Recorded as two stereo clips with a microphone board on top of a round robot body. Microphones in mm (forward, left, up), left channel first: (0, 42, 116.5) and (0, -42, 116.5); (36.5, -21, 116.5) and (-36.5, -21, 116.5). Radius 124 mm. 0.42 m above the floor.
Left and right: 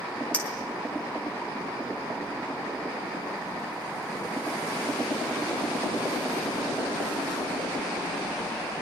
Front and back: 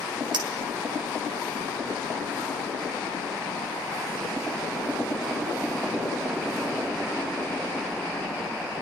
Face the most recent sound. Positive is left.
turn(degrees=165)